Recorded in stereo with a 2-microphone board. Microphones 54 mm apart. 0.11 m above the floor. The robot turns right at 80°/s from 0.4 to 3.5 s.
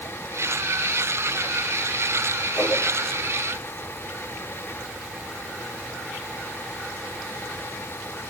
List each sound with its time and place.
2.6 s a whoosh: 35° left (ahead or behind), 2.5 m; by 2.8 s 45° left (ahead or behind), 2.5 m